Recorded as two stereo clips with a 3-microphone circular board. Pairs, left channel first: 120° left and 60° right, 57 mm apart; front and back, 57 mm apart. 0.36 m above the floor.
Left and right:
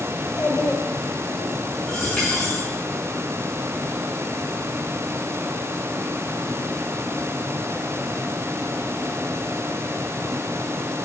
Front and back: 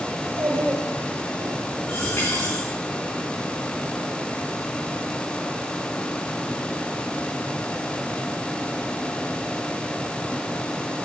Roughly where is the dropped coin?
Ahead left.